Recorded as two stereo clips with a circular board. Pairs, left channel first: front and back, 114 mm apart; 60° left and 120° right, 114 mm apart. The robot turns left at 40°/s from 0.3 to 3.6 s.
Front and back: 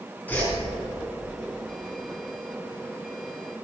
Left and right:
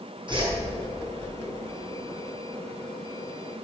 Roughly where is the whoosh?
Right.